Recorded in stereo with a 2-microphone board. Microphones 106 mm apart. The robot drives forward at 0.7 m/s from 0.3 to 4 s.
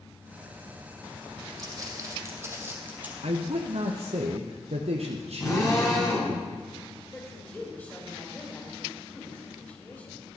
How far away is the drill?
About 5 m.